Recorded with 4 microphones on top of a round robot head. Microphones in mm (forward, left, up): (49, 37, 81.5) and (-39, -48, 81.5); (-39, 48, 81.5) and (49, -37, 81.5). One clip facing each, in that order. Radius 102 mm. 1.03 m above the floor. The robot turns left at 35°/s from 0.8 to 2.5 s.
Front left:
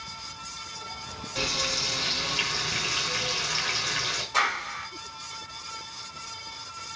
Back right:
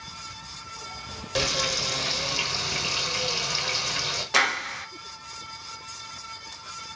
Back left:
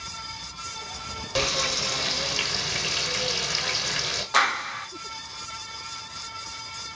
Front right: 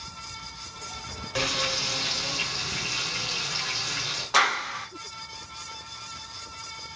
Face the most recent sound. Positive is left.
turn(degrees=-130)